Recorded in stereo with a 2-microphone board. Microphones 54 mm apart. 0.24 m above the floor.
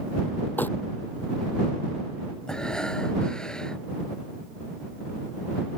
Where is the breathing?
15° left (ahead or behind).